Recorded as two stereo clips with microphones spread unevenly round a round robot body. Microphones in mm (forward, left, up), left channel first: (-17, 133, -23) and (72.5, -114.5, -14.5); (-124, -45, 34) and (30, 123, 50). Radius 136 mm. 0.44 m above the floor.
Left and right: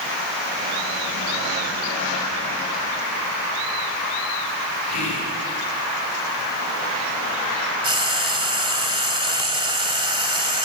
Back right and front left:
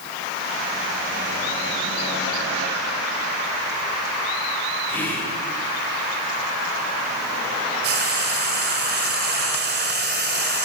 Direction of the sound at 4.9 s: 145° left.